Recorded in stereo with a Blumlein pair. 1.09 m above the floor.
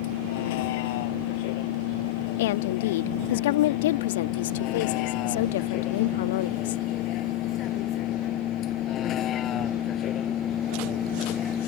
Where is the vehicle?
50° left; by 11.7 s 25° left.